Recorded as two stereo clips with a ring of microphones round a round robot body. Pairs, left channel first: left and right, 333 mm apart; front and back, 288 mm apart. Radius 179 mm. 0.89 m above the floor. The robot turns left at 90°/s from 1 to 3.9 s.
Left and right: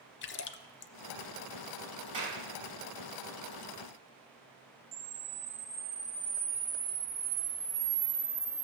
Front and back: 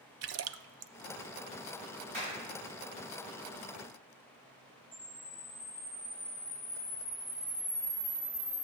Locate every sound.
0.2 s a splash: 145° left, 0.6 m
2.1 s a clap: 160° right, 5.5 m; by 2.4 s 175° left, 5.5 m
4.9 s a camera shutter: 60° right, 2 m